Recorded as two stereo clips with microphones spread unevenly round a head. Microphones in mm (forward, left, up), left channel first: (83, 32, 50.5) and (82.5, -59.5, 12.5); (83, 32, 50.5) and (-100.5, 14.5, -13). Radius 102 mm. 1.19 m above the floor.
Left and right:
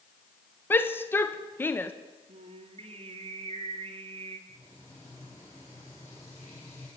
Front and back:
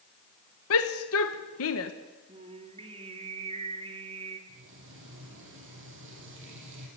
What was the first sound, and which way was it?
A shout, 15° left.